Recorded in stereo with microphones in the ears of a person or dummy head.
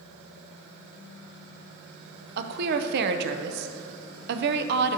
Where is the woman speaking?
55° right (ahead or behind), 0.5 m.